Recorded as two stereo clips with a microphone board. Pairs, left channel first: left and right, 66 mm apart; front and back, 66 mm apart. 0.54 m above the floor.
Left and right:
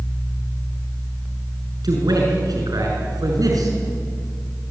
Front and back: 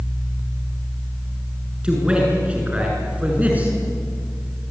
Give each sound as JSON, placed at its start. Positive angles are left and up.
{"t": 1.8, "sound": "a man speaking", "azimuth_deg": -105, "distance_m": 7.0}